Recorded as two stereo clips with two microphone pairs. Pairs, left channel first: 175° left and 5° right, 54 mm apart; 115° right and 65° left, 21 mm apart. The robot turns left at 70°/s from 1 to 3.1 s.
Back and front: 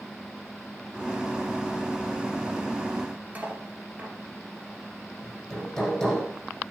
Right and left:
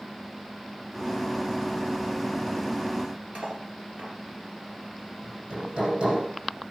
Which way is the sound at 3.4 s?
55° left.